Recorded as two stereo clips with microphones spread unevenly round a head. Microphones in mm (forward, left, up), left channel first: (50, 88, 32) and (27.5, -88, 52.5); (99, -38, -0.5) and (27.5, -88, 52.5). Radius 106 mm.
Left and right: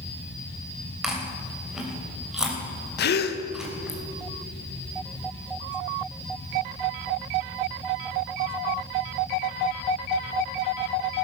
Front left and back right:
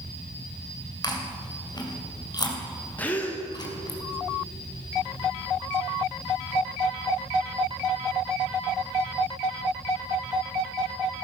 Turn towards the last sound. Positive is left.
turn(degrees=90)